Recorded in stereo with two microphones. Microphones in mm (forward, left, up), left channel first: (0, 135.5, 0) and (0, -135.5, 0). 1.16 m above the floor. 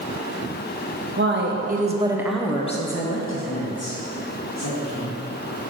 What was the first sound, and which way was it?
A woman speaking, 45° right (ahead or behind).